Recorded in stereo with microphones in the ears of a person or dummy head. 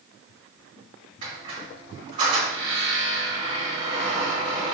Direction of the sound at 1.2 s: 50° right (ahead or behind).